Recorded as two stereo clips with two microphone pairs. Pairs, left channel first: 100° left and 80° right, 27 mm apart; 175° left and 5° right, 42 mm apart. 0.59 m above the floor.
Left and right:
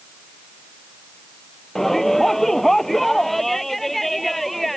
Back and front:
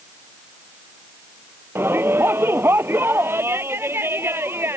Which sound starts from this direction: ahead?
A shout, at 1.8 s.